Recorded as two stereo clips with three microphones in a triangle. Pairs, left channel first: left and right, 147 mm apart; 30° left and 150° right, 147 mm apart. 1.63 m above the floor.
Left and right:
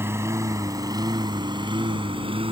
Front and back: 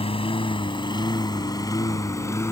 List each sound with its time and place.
0.0 s a lawn mower: 20° right; by 2.5 s 40° right